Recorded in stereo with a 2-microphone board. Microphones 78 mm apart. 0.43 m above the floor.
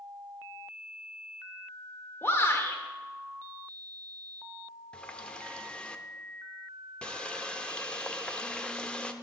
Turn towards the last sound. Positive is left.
turn(degrees=10)  # may be behind; listen again after turning